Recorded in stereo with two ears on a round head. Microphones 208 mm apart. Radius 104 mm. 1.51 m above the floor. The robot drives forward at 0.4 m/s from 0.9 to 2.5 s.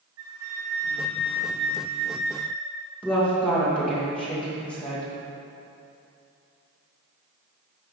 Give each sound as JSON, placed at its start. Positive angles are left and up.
{"t": 0.2, "sound": "a flute", "side_deg": -65, "distance_m": 3.0}
{"t": 3.0, "sound": "a woman speaking", "side_deg": 5, "distance_m": 2.0}